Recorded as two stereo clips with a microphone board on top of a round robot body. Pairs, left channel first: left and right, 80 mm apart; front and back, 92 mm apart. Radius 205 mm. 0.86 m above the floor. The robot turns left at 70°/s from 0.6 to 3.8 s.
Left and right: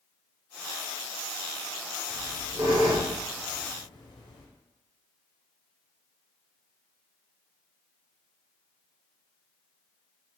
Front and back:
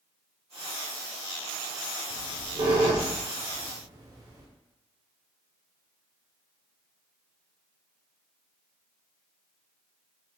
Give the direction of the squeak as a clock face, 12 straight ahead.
4 o'clock.